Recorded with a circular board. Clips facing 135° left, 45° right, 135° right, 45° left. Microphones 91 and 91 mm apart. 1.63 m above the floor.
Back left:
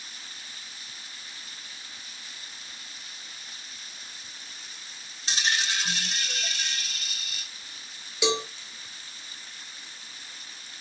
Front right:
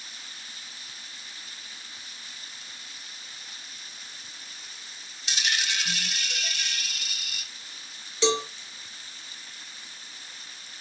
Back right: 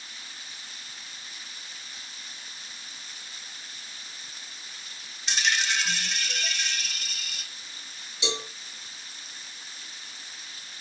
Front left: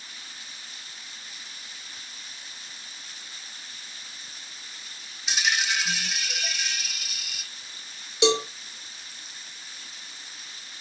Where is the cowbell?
55° left, 1.6 m.